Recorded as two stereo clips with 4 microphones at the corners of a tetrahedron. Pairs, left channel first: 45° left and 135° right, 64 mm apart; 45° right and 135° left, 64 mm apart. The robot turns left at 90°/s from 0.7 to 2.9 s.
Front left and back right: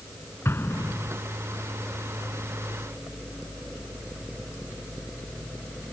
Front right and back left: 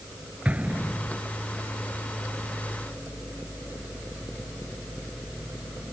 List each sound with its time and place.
0.5 s an explosion: 75° left; by 1.2 s 30° left